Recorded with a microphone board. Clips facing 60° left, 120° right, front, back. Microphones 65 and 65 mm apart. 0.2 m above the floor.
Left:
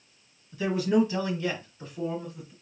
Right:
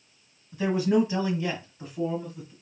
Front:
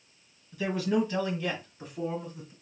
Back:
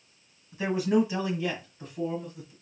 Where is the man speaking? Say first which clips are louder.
Right 1 dB, back 3 dB; 145° right, 1.7 m; by 2.5 s 35° right, 1.7 m.